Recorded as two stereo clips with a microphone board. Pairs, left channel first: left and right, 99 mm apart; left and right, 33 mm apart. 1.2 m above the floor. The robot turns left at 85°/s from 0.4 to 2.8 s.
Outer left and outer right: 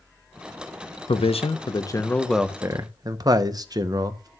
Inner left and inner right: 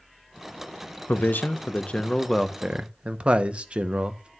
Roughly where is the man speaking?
Left.